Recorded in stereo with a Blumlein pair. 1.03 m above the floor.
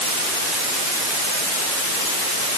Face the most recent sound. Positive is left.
No sound to turn to.